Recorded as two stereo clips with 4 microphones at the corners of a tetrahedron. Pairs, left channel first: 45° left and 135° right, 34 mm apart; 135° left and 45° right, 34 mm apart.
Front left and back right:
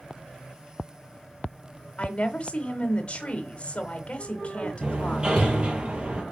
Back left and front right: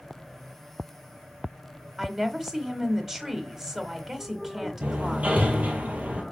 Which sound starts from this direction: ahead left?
A woman speaking, at 2.0 s.